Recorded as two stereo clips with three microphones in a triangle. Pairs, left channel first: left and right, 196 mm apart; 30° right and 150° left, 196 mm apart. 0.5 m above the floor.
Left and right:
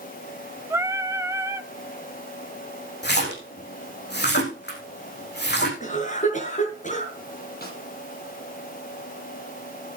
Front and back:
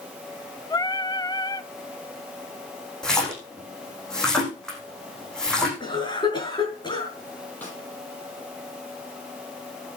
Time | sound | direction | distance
0.7 | singing | 45° right | 0.8 m
3.0 | a splash | 55° left | 5.5 m
5.8 | a cough | 40° left | 6.5 m
7.6 | a snare drum | 50° left | 7 m